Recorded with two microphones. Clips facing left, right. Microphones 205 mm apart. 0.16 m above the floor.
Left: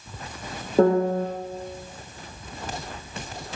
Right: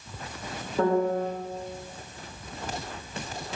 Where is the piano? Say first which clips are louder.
Left 5 dB; 45° left (ahead or behind), 1.1 m.